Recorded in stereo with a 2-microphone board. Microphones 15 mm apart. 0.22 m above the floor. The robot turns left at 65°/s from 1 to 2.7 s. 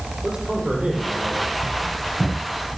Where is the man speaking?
95° right, 8 m; by 1.5 s 130° right, 8 m.